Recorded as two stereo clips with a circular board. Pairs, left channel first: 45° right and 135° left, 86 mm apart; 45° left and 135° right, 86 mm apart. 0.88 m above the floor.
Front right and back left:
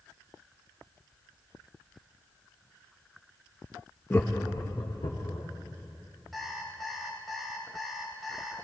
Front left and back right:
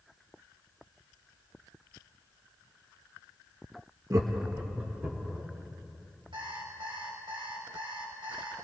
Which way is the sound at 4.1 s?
105° right.